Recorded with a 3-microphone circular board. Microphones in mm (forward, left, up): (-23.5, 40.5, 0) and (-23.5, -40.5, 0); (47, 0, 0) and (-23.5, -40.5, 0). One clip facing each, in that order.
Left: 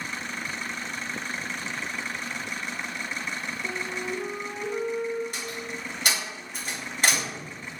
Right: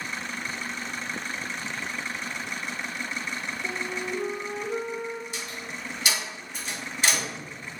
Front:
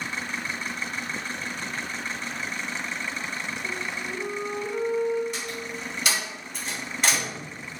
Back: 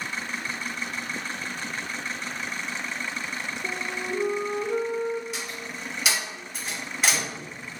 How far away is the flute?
About 0.6 m.